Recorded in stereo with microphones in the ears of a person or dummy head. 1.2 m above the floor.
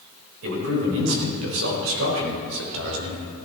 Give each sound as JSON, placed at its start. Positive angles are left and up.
{"t": 0.4, "sound": "a man speaking", "side_deg": -85, "distance_m": 4.5}